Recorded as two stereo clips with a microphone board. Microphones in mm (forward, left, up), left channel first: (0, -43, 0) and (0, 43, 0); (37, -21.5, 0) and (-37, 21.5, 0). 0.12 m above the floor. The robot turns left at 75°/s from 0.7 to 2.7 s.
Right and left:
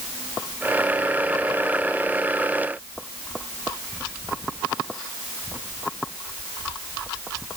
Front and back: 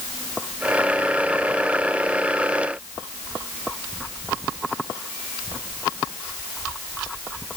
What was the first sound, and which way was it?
Only background noise.